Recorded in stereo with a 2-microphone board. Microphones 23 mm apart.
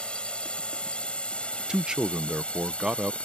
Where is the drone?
50° left (ahead or behind); by 3.2 s 60° left (ahead or behind).